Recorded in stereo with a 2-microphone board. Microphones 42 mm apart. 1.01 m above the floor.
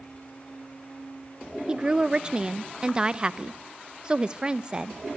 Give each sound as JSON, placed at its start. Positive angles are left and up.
{"t": 1.7, "sound": "a woman speaking", "side_deg": -25, "distance_m": 0.7}